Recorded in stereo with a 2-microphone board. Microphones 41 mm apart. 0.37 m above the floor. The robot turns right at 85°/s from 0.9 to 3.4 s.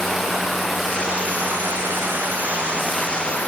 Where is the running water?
170° right, 7.5 m; by 3.5 s 40° left, 7.5 m.